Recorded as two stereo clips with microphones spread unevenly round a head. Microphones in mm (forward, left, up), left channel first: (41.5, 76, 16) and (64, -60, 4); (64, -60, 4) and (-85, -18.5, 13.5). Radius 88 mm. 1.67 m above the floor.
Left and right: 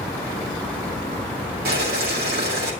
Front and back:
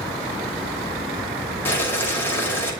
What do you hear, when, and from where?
1.6 s boiling: 95° right, 6 m